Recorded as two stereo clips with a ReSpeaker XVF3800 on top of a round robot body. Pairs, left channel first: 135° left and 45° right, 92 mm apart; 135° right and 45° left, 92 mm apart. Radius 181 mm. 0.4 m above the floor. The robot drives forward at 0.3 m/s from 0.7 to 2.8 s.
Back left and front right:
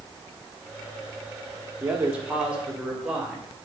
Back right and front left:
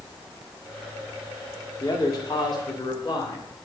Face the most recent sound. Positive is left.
turn(degrees=-125)